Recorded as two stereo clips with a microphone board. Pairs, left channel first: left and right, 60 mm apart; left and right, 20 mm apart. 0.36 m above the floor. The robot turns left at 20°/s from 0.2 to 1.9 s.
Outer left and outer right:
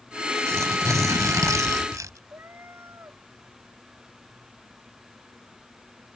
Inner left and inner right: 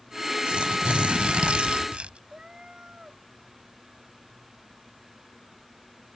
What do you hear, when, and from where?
0.5 s tearing paper: 60° right (ahead or behind); by 2.2 s 65° right (ahead or behind)
2.3 s a cat meowing: 40° right (ahead or behind)